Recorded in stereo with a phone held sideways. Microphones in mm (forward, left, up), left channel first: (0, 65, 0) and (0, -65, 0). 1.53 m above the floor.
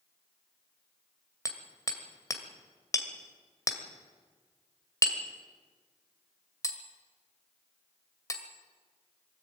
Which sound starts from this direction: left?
Hammering, at 1.4 s.